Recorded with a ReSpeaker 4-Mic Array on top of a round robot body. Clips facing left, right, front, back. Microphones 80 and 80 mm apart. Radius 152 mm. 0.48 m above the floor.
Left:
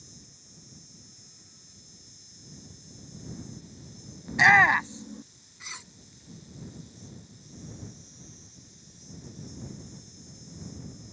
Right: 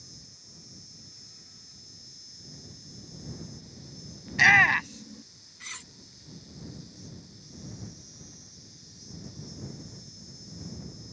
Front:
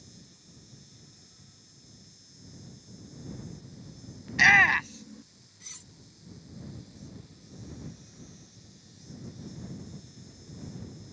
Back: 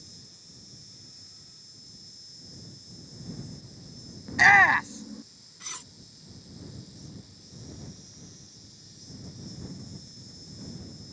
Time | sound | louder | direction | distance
0.0 | an insect | even, front 1 dB | 175° right | ?
4.3 | a shout | left 2 dB, back 3 dB | 135° left | ?
5.6 | cutlery clinking | left 1 dB, back 11 dB | 165° left | ?